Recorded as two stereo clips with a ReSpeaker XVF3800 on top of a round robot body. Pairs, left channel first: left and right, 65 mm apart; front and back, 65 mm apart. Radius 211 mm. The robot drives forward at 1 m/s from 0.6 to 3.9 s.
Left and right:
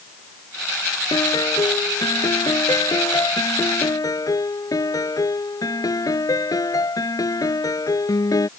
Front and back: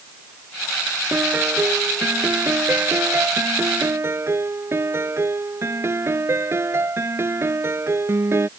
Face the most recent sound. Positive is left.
turn(degrees=125)